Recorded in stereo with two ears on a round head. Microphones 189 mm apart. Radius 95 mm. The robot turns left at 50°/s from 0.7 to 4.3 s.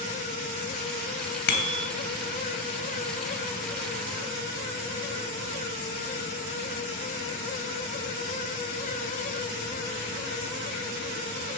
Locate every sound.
1.5 s a bicycle bell: 50° left (ahead or behind), 3 m; by 1.9 s 70° left (ahead or behind), 3 m